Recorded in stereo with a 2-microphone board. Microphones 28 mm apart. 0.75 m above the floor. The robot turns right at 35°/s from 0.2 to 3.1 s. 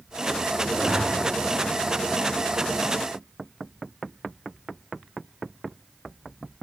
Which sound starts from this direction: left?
A zipper, at 0.7 s.